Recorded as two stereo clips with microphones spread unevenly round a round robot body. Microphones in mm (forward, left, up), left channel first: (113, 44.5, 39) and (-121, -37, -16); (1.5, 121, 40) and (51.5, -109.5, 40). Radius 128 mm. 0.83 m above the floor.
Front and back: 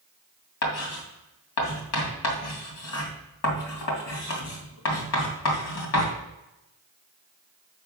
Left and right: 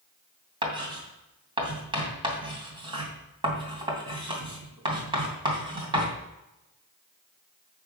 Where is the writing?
5° right, 2.5 m.